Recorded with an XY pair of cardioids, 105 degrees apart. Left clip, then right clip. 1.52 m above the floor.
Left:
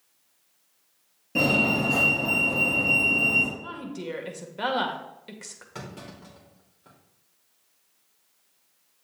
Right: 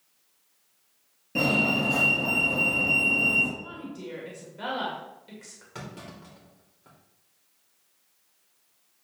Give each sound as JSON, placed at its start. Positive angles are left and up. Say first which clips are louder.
{"t": 1.4, "sound": "a fire alarm", "louder": "left 2 dB", "azimuth_deg": 5, "distance_m": 3.5}
{"t": 3.6, "sound": "a woman speaking", "louder": "left 3 dB", "azimuth_deg": 55, "distance_m": 1.8}
{"t": 5.8, "sound": "a clunk", "louder": "even", "azimuth_deg": 0, "distance_m": 3.0}